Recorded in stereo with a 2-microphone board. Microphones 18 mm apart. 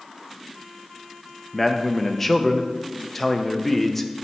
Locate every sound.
1.5 s a man speaking: 10° left (ahead or behind), 0.6 m